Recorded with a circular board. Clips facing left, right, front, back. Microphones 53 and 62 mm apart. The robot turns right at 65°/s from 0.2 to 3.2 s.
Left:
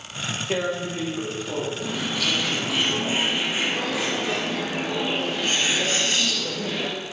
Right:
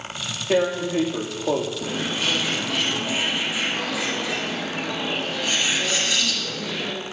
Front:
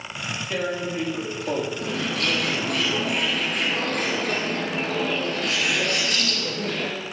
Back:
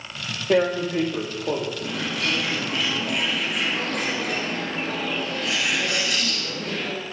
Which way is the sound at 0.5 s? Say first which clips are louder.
Right 6 dB, back 8 dB; 165° right.